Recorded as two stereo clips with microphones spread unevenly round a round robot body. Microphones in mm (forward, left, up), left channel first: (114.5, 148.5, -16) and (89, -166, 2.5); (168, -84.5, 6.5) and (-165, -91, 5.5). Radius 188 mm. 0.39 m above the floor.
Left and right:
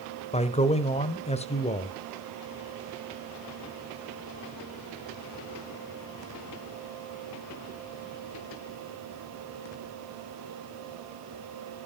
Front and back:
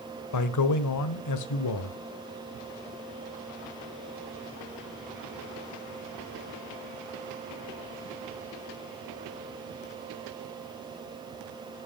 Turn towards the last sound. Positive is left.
turn(degrees=20)